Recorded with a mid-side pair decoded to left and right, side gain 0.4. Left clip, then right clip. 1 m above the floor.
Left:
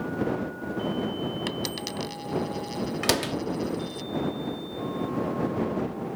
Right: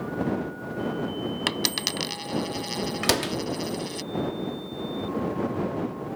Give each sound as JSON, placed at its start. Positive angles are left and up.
{"t": 1.5, "sound": "a dropped coin", "azimuth_deg": -65}
{"t": 3.0, "sound": "a door slam", "azimuth_deg": -15}